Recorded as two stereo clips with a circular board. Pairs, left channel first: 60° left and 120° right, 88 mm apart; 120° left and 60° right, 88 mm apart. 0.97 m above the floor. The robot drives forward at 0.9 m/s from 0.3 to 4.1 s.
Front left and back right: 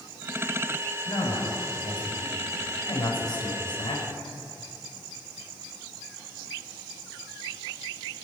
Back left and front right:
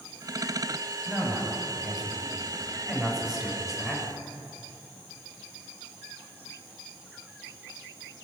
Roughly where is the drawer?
I don't hear a drawer.